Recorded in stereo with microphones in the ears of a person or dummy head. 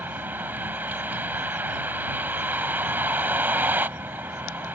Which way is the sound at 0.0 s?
10° right (ahead or behind).